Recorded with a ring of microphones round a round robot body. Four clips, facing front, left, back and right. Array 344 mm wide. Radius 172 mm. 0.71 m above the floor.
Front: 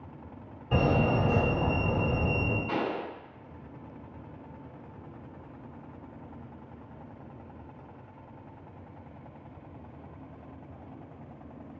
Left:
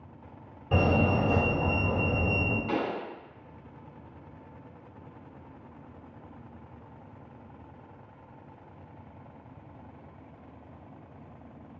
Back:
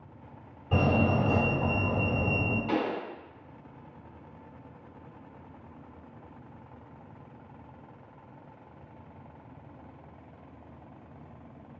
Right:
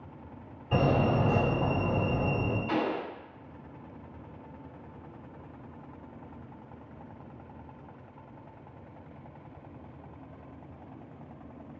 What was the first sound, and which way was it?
A fire alarm, 85° left.